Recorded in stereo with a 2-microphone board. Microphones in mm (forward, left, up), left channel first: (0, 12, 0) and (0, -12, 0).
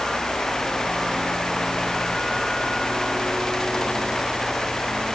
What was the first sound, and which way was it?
Only background noise.